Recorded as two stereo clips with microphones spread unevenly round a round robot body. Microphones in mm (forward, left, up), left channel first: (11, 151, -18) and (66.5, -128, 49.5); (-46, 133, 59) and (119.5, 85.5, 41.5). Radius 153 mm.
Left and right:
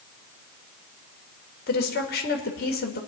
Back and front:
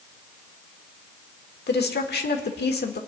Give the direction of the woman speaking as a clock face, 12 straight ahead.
7 o'clock.